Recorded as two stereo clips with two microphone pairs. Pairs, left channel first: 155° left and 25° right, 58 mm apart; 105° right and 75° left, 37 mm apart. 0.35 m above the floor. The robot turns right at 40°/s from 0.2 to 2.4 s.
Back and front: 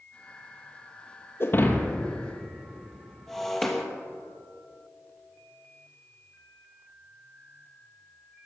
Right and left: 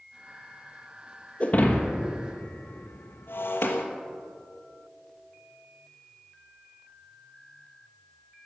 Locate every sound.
1.4 s breaking glass: 160° right, 1.5 m; by 3.9 s 120° right, 1.5 m